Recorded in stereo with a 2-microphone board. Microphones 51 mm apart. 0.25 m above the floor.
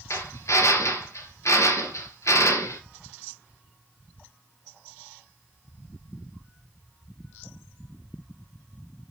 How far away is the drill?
About 3 m.